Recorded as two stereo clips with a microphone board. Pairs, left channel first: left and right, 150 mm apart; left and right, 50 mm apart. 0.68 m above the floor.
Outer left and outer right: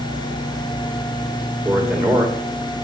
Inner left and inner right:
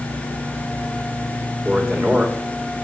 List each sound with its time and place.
1.6 s a man speaking: 10° right (ahead or behind), 3 m